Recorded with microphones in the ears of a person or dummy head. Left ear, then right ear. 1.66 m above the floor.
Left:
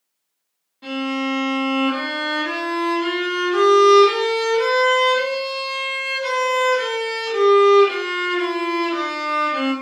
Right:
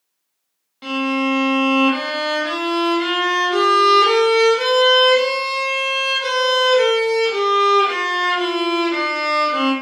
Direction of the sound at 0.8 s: 40° right (ahead or behind).